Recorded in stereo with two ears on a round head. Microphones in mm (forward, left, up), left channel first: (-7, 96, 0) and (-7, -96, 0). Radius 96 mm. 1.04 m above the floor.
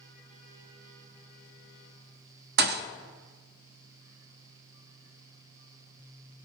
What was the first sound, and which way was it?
A thud, 45° right (ahead or behind).